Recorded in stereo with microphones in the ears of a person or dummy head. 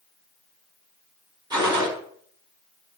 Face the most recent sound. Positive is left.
turn(degrees=-25)  # may be behind; listen again after turning